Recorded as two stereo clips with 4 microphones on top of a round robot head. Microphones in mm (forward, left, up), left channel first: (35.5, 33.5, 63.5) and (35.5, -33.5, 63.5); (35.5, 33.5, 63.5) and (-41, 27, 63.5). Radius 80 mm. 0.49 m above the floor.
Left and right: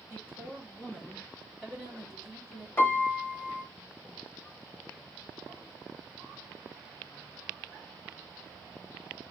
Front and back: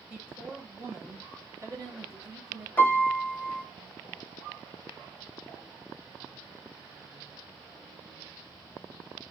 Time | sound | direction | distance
0.1 | a woman speaking | 115° left | 1.5 m
2.8 | a piano | 55° left | 0.9 m